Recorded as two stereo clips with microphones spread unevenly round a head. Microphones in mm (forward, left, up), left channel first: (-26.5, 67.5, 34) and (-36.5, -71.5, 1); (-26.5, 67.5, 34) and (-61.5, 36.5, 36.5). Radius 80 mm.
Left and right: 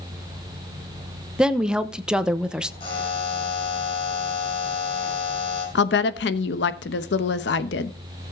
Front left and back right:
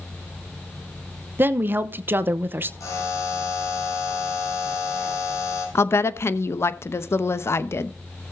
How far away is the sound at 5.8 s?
About 0.9 m.